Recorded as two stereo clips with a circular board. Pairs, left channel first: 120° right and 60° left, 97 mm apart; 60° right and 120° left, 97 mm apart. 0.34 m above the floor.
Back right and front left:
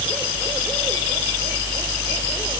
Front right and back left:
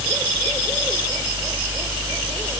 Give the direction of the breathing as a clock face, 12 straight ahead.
I don't hear breathing.